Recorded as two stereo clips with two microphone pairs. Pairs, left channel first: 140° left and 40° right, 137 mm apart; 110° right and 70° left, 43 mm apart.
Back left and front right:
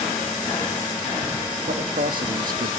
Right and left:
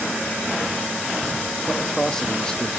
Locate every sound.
1.7 s a man speaking: 30° right, 2.5 m; by 2.7 s 45° right, 1.6 m